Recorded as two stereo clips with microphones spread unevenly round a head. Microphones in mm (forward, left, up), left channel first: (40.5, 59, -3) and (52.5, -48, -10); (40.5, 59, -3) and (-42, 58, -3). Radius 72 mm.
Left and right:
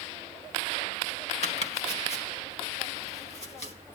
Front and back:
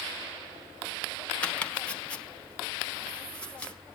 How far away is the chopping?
About 1.8 m.